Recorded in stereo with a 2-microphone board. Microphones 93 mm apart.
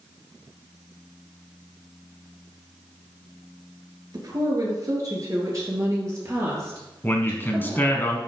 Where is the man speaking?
20° left (ahead or behind), 1.2 m.